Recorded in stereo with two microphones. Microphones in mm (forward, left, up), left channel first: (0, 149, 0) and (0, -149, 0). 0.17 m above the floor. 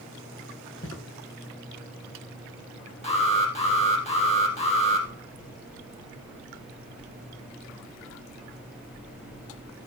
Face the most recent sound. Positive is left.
turn(degrees=20)  # may be behind; listen again after turning